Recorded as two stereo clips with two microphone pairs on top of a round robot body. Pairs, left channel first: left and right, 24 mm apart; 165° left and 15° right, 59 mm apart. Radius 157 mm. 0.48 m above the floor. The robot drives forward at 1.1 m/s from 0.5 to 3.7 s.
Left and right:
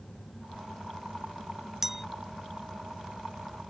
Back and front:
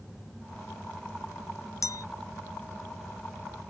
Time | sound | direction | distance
1.8 | a clink | 165° right | ?